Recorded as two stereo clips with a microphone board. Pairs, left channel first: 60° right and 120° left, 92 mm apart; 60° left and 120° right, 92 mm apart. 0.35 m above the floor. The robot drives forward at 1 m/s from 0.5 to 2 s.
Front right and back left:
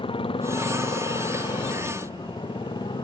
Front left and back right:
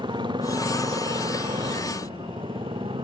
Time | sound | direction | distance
0.0 | a motorcycle | 85° right | ?